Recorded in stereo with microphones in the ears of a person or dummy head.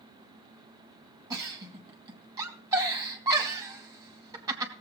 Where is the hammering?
I don't hear hammering.